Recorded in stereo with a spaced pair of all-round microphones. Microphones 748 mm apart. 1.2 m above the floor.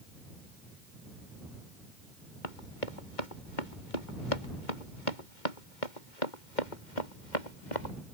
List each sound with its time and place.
2.4 s running footsteps: 85° left; by 8.0 s 70° left (ahead or behind)